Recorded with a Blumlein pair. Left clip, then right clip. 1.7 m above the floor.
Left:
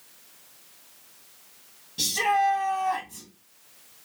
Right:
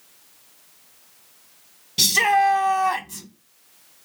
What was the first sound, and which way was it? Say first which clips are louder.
A shout: right 6 dB; 35° right.